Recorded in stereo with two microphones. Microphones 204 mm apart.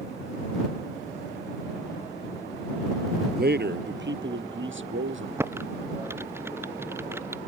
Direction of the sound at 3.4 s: 50° right (ahead or behind).